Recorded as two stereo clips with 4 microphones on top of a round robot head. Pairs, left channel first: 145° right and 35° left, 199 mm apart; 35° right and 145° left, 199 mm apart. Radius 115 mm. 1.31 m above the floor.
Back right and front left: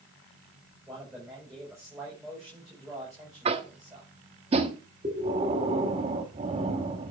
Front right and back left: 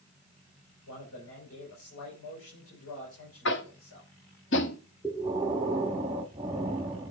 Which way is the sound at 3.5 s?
20° right.